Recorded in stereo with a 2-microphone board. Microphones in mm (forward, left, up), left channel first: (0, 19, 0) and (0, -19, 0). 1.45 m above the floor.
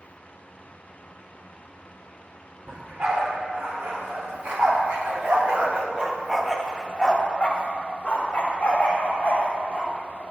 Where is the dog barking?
70° right (ahead or behind), 4 m; by 10.2 s 50° left (ahead or behind), 5 m.